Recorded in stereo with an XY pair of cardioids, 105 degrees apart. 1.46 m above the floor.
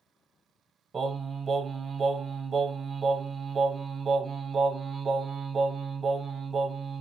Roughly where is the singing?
Ahead right.